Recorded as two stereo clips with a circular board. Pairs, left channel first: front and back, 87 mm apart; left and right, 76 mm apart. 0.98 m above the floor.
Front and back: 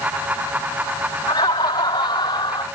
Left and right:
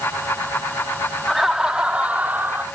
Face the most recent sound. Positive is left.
turn(degrees=-25)